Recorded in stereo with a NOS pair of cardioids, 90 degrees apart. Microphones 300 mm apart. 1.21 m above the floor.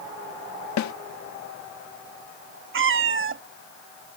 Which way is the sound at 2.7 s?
45° right.